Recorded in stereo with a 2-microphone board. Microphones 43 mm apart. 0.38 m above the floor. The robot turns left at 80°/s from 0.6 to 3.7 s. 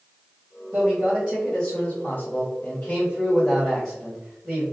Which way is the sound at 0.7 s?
115° right.